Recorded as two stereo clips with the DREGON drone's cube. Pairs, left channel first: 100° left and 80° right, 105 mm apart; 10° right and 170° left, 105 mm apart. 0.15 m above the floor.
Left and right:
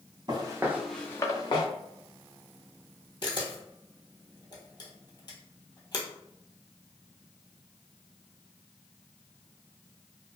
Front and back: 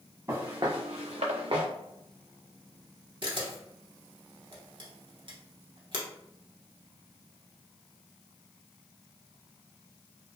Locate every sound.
0.3 s footsteps: 125° right, 1.0 m; by 1.7 s 140° left, 1.1 m
3.2 s a camera shutter: 140° left, 0.8 m